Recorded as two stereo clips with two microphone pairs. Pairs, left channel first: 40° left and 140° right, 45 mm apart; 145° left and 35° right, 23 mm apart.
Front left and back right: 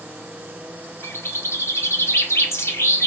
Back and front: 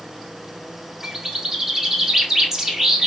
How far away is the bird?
About 0.8 m.